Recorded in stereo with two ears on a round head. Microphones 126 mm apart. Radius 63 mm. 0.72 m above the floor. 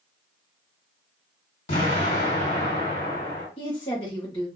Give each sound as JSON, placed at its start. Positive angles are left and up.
{"t": 1.7, "sound": "an explosion", "side_deg": 50, "distance_m": 1.7}
{"t": 3.6, "sound": "a woman speaking", "side_deg": 35, "distance_m": 1.0}